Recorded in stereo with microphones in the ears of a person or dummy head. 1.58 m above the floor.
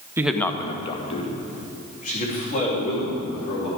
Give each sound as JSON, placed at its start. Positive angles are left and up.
{"t": 0.2, "sound": "a man speaking", "side_deg": -10, "distance_m": 0.6}